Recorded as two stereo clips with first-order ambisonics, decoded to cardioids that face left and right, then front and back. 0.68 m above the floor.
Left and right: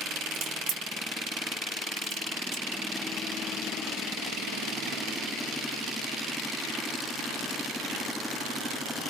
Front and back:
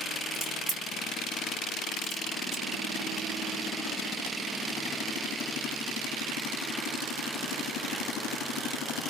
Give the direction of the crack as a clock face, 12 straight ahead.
4 o'clock.